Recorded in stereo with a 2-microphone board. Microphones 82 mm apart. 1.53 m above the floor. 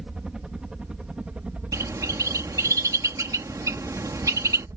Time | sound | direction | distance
0.0 | a helicopter | 5° right (ahead or behind) | ?
1.7 | a bird | 45° right (ahead or behind) | ?